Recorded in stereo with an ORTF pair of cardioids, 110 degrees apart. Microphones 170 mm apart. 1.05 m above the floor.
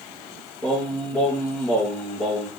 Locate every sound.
0.6 s singing: 15° left, 7 m